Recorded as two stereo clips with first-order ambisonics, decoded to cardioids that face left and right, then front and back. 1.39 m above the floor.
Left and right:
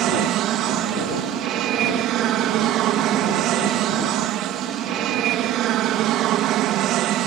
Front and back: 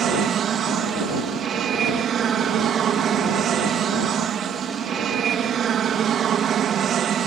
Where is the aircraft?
125° right.